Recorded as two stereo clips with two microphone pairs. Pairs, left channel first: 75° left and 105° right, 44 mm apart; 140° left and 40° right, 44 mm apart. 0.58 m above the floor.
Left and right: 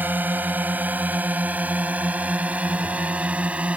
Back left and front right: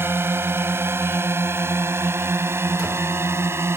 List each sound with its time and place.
0.0 s a drone: 60° right; by 3.8 s 40° right